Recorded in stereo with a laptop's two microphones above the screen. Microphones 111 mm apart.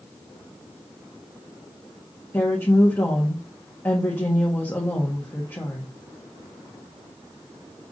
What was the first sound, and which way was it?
A woman speaking, 20° left (ahead or behind).